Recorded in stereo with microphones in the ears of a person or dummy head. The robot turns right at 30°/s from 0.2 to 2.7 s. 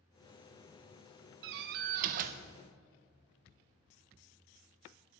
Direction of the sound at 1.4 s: 80° right.